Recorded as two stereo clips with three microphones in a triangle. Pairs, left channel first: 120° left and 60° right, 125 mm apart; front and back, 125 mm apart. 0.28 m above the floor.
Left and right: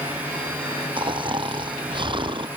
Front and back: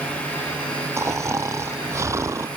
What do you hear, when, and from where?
1.0 s snoring: 110° right